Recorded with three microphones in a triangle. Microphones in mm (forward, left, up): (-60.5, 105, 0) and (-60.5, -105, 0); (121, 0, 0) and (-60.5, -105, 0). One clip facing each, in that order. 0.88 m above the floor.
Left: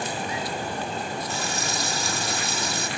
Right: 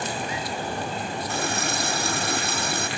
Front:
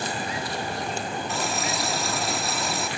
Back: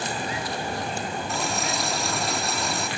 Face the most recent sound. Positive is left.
turn(degrees=-60)